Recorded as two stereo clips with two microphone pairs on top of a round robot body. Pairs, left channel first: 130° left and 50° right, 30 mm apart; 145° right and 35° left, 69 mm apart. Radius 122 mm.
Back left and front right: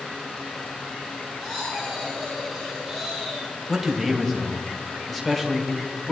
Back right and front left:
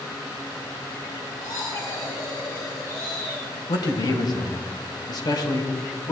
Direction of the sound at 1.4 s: 165° right.